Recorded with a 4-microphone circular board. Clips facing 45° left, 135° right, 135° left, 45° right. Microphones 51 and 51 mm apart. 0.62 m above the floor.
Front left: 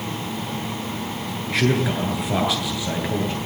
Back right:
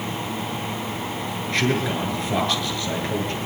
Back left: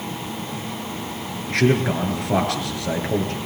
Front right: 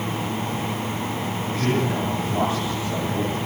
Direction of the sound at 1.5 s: 125° left.